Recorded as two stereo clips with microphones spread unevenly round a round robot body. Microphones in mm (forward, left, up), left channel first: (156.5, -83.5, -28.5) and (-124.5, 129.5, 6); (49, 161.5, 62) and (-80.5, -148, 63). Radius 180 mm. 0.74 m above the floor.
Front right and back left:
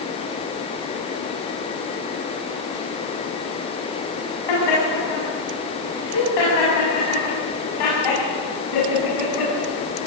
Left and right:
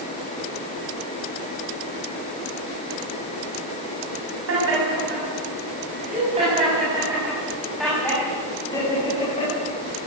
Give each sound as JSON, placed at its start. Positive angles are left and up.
{"t": 4.5, "sound": "laughter", "azimuth_deg": -60, "distance_m": 7.0}